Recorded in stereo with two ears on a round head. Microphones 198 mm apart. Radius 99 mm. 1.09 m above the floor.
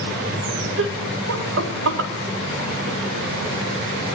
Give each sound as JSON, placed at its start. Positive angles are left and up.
{"t": 0.8, "sound": "laughter", "side_deg": -60, "distance_m": 1.5}